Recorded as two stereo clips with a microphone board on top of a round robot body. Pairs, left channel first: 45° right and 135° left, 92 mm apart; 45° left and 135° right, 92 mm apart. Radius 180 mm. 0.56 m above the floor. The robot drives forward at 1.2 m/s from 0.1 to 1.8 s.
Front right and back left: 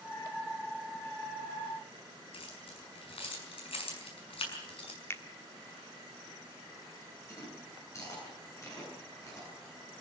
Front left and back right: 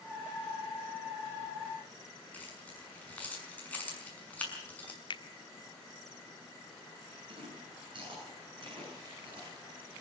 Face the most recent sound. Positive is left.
turn(degrees=-100)